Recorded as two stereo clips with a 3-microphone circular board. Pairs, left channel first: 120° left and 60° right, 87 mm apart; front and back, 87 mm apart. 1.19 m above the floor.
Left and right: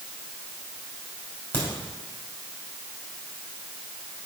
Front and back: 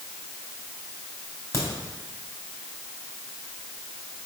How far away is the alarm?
I don't hear an alarm.